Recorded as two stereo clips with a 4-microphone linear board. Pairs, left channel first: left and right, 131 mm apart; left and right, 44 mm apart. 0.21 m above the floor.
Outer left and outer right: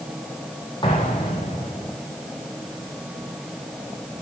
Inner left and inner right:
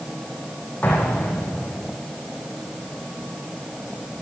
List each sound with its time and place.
0.8 s an explosion: 35° left (ahead or behind), 10 m